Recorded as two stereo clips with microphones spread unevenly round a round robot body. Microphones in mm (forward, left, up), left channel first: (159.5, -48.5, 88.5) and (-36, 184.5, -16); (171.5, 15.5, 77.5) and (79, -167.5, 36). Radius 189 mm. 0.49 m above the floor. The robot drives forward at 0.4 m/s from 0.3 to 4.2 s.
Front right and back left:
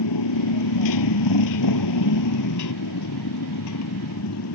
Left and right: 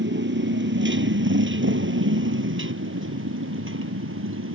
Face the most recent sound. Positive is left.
turn(degrees=-100)